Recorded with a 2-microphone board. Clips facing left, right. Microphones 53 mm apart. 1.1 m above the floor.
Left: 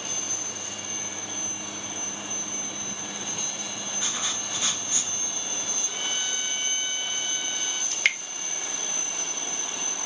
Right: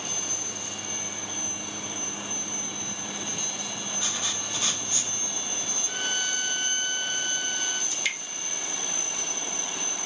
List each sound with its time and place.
4.0 s writing: 25° left (ahead or behind), 1.2 m
5.8 s a violin: 45° right (ahead or behind), 1.1 m
7.9 s dripping: 55° left (ahead or behind), 0.5 m